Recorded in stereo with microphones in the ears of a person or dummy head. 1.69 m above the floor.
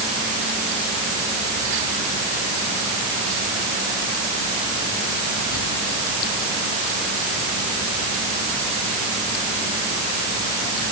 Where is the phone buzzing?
No phone buzzing in this recording.